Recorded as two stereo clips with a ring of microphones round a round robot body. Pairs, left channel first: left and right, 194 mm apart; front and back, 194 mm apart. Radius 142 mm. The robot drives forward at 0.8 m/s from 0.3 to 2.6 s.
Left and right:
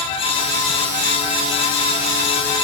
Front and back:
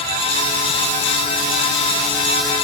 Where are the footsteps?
I don't hear footsteps.